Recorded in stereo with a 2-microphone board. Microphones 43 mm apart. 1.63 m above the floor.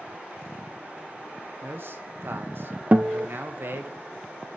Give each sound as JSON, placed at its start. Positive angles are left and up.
{"t": 1.6, "sound": "a man speaking", "side_deg": -55, "distance_m": 1.6}
{"t": 2.9, "sound": "a guitar", "side_deg": -35, "distance_m": 0.6}